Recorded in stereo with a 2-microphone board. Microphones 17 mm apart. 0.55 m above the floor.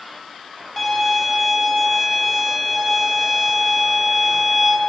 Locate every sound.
0.8 s a violin: 20° left (ahead or behind), 1.2 m